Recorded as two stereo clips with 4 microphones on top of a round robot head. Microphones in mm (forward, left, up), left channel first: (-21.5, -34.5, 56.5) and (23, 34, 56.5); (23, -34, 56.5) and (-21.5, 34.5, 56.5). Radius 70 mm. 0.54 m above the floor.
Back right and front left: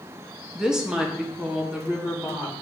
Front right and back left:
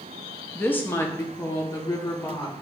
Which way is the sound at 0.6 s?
15° right.